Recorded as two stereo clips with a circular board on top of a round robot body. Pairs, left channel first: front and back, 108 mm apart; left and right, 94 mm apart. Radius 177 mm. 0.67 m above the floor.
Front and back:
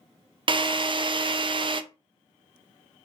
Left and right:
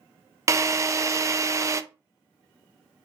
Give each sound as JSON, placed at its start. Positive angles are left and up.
{"t": 0.5, "sound": "a drill", "azimuth_deg": -145, "distance_m": 0.6}